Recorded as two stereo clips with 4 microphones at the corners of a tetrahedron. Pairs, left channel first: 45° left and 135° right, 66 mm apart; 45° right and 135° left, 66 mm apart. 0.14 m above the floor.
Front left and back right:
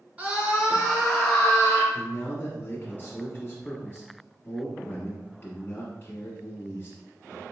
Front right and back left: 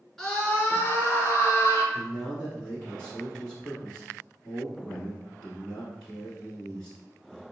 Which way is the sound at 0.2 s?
115° right.